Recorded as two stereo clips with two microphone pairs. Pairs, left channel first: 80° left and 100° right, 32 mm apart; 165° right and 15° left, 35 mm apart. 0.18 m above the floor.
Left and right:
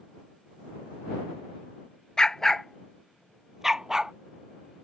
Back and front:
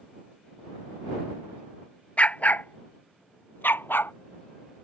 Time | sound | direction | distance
2.2 | a dog barking | 145° left | ?